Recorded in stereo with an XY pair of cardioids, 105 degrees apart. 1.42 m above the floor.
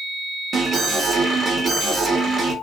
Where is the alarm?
40° right, 1.4 m.